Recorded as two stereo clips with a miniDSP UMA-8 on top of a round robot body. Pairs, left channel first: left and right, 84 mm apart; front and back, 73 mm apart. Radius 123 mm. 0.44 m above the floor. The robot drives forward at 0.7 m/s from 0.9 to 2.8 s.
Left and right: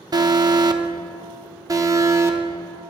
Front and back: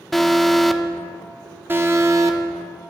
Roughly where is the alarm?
Right.